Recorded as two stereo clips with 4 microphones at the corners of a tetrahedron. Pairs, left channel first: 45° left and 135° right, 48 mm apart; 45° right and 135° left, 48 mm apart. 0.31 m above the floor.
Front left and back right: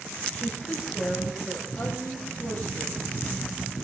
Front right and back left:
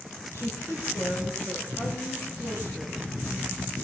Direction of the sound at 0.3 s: 35° right.